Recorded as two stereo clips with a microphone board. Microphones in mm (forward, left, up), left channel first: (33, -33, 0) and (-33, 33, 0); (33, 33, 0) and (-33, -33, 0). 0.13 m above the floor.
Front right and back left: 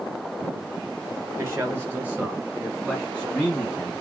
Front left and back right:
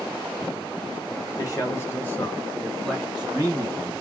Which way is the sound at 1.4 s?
85° left.